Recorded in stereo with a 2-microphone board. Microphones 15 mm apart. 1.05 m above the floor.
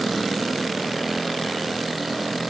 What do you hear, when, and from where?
Only background noise.